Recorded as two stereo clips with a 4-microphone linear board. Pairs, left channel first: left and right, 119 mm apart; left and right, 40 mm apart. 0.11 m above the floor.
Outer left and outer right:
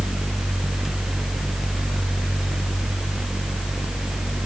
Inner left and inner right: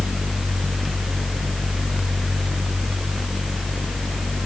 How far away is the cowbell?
I don't hear a cowbell.